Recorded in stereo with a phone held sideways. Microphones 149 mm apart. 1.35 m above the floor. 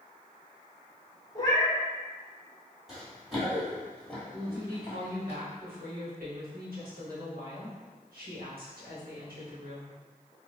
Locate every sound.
1.4 s a cat meowing: 25° left (ahead or behind), 0.8 m
2.9 s running footsteps: centre (ahead or behind), 2.0 m; by 5.3 s 20° left (ahead or behind), 1.4 m
4.3 s a woman speaking: 80° right, 1.2 m